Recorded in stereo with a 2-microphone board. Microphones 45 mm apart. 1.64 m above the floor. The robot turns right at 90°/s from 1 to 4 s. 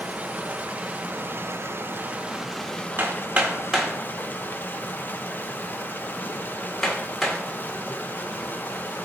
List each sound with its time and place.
0.0 s running water: 140° right, 0.8 m; by 9.1 s 130° left, 0.8 m
3.0 s hammering: 50° right (ahead or behind), 1.7 m; by 7.4 s 5° left (ahead or behind), 1.7 m